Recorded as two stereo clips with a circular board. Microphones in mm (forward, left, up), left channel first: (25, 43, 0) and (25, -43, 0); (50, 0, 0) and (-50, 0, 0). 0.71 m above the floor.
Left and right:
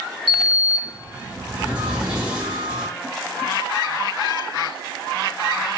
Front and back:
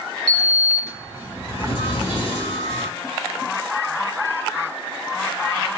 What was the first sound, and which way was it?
A sliding door, 10° right.